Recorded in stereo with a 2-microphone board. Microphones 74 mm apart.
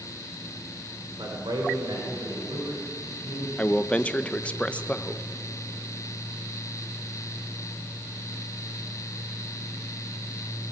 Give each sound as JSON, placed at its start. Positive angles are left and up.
{"t": 1.2, "sound": "a man speaking", "side_deg": -90, "distance_m": 3.0}
{"t": 3.6, "sound": "a man speaking", "side_deg": 15, "distance_m": 0.8}